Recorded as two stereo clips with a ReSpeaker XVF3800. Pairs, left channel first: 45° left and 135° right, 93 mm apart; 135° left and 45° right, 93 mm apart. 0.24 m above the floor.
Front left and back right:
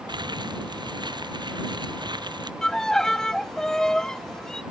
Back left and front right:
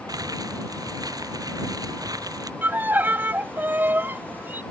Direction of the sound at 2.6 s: 30° right.